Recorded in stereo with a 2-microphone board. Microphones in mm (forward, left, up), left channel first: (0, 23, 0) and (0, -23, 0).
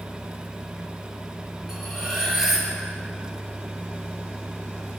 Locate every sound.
1.7 s cutlery clinking: 10° right (ahead or behind), 3.5 m